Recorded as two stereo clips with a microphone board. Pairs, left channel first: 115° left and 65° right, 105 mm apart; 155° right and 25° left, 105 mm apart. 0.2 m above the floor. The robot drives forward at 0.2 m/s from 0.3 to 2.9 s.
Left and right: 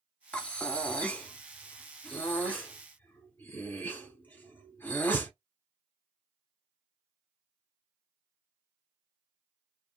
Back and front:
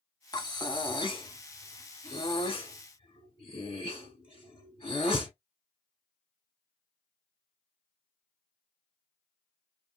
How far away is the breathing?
About 0.6 m.